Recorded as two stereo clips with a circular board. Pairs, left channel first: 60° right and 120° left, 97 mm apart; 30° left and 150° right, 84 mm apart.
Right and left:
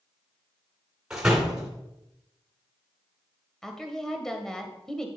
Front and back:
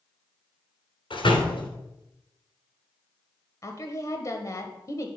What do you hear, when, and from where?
1.1 s a door slam: 40° left, 2.5 m
3.6 s a woman speaking: 20° left, 1.3 m